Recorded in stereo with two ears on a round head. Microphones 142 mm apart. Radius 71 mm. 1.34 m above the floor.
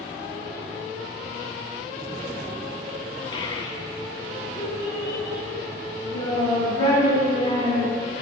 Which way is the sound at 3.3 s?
30° left (ahead or behind).